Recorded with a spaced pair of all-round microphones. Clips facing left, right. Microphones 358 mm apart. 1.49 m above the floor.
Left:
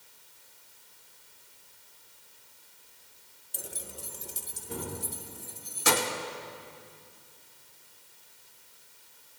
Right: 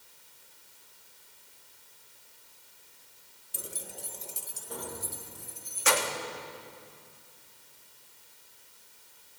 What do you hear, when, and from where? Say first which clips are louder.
3.5 s keys jangling: even; 15° right (ahead or behind), 0.6 m; by 6.2 s 55° left (ahead or behind), 1.9 m